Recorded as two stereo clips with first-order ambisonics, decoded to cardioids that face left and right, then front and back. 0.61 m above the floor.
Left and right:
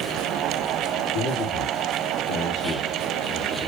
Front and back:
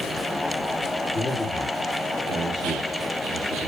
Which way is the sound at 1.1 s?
90° left.